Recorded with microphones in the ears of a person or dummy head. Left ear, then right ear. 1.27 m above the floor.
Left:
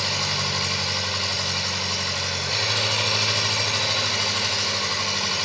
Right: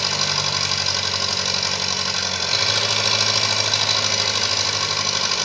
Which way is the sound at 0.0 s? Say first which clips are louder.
Right 3 dB; 35° right (ahead or behind).